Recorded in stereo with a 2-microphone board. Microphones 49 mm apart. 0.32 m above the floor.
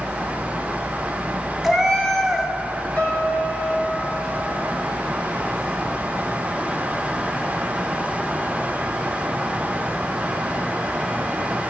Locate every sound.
1.6 s a cat meowing: centre (ahead or behind), 0.9 m
3.0 s a piano: 35° left (ahead or behind), 3.5 m